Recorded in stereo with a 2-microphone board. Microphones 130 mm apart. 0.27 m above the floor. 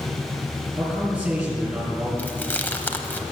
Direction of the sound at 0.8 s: 5° right (ahead or behind).